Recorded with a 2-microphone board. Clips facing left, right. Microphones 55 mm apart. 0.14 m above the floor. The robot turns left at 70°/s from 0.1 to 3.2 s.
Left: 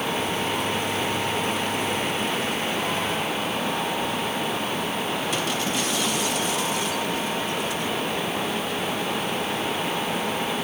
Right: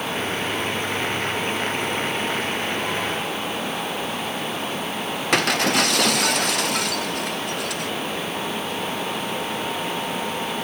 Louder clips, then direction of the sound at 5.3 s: Right 6 dB; 70° right (ahead or behind).